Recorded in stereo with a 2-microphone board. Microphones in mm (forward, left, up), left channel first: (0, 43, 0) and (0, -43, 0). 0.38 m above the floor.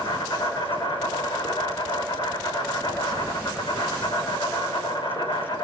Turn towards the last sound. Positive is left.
turn(degrees=75)  # may be behind; listen again after turning